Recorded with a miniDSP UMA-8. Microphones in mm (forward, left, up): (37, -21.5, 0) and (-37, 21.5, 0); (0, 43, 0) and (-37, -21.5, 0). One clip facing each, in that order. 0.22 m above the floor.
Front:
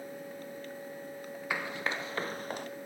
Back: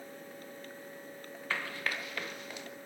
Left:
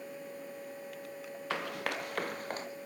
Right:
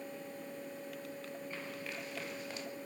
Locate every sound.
1.5 s running footsteps: 50° left, 1.8 m; by 2.7 s 15° left, 1.7 m